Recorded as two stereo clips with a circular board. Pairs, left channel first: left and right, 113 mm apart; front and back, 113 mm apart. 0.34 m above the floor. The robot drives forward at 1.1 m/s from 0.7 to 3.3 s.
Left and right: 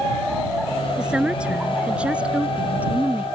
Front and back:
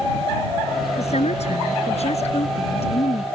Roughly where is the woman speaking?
Ahead.